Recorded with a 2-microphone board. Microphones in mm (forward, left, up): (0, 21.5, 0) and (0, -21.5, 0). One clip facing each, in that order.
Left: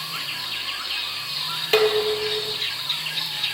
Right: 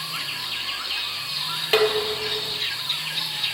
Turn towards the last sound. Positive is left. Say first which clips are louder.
# left 2 dB
turn(degrees=-10)  # may be behind; listen again after turning